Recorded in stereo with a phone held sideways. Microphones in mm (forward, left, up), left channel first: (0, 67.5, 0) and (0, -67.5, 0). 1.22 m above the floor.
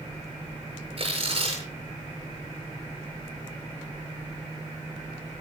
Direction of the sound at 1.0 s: 45° right (ahead or behind).